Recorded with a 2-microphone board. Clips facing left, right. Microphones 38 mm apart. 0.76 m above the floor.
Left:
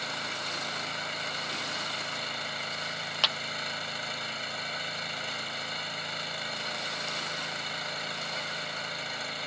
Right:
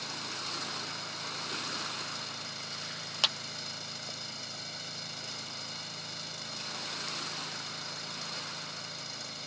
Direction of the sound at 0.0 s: 45° left (ahead or behind).